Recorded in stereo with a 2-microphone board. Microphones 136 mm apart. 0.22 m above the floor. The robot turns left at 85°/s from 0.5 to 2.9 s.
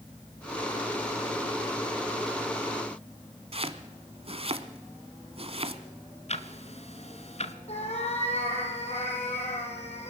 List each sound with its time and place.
3.5 s chopping: 45° right (ahead or behind), 1.1 m
6.3 s ticking: 50° left (ahead or behind), 1.0 m
7.7 s a cat meowing: 50° left (ahead or behind), 4 m